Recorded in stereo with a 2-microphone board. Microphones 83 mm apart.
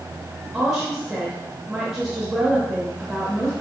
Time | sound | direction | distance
0.5 | a woman speaking | 5° right (ahead or behind) | 1.1 m